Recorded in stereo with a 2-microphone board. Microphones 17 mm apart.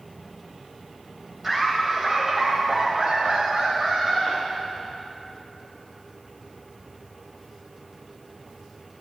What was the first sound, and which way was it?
Laughter, 20° right (ahead or behind).